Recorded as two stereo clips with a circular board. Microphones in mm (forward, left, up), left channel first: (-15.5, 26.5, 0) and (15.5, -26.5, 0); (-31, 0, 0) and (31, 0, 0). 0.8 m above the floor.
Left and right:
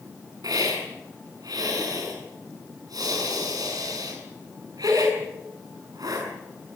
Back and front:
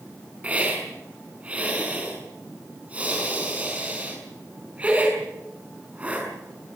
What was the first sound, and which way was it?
A hiss, 70° right.